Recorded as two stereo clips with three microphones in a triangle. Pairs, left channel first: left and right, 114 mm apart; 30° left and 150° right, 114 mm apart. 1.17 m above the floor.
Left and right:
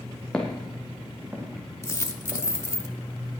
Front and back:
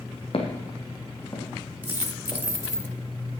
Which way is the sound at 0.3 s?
10° left.